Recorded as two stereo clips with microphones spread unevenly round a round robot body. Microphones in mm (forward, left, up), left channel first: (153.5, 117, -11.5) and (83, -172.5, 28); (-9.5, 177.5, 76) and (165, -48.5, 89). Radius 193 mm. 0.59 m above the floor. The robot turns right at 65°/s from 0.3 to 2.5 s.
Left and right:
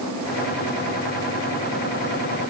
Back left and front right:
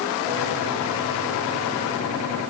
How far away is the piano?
I don't hear a piano.